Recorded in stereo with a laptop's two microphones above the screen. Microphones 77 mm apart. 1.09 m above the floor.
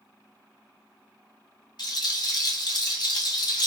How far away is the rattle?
About 0.9 m.